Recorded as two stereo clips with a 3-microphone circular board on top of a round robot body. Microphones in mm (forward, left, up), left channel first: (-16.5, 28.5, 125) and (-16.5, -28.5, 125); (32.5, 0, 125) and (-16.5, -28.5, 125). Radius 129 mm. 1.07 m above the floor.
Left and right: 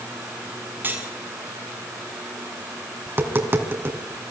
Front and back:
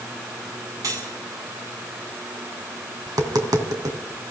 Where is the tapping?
140° right, 2.5 m.